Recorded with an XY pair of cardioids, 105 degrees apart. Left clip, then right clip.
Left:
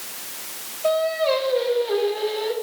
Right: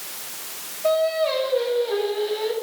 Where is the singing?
20° left, 2.0 m.